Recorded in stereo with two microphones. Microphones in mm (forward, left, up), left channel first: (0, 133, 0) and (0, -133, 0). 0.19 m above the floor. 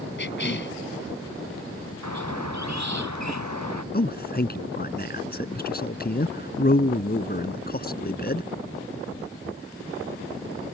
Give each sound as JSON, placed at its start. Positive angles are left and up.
{"t": 0.2, "sound": "a cough", "side_deg": 45}
{"t": 2.0, "sound": "a squeak", "side_deg": -90}
{"t": 3.9, "sound": "a man speaking", "side_deg": 35}